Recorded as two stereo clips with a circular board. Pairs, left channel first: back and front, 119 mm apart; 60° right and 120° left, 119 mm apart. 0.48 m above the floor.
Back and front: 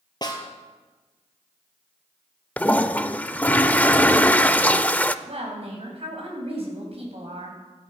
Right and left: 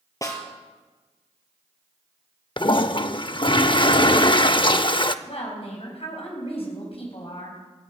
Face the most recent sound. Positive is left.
turn(degrees=-30)